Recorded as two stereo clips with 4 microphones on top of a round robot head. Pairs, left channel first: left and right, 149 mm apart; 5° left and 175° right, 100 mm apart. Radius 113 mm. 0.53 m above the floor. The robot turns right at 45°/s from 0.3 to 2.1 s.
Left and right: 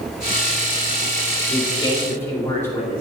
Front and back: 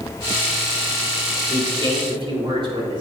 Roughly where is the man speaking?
Behind left.